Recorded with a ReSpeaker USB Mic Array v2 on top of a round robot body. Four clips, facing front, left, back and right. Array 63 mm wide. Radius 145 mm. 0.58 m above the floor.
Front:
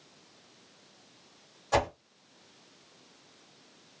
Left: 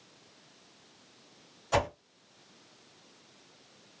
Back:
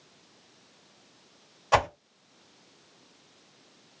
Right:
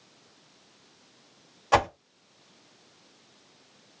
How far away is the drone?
No drone in this recording.